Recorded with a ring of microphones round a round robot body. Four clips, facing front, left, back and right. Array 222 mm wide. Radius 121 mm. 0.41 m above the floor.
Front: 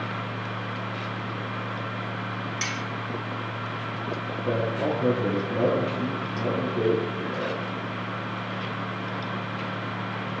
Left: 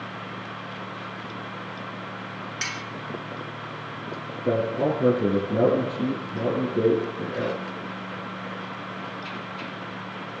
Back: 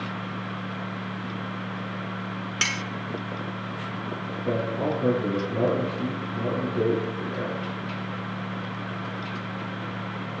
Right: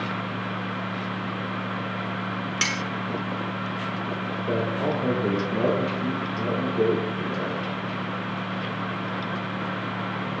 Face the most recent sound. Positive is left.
turn(degrees=85)